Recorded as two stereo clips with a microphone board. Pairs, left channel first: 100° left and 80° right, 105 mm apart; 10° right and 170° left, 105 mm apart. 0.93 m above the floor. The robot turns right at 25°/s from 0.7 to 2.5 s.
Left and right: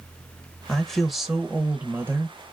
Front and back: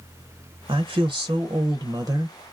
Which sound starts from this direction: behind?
A woman speaking, at 0.7 s.